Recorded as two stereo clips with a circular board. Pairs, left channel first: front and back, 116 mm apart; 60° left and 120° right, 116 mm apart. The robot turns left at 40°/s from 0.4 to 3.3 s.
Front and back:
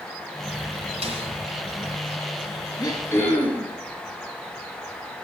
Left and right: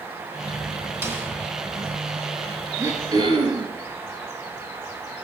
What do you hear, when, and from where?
1.0 s a snare drum: 175° left, 2.5 m; by 1.3 s 165° left, 2.5 m
2.8 s throat clearing: 55° right, 2.5 m; by 3.7 s 75° right, 2.5 m